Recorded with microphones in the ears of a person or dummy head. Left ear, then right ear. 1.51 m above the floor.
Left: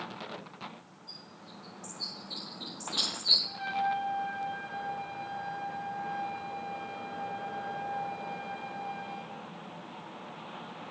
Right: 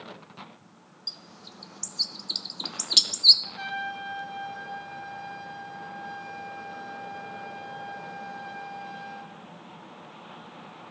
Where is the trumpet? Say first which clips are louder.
Left 2 dB; 65° right (ahead or behind), 1.6 m.